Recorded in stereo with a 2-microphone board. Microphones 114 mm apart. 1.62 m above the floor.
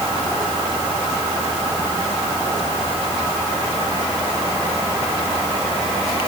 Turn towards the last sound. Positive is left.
No sound to turn to.